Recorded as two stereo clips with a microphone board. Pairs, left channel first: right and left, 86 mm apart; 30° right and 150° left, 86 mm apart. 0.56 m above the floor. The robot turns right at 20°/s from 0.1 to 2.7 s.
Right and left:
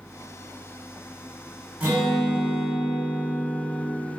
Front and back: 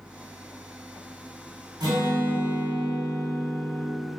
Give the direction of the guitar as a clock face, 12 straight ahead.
7 o'clock.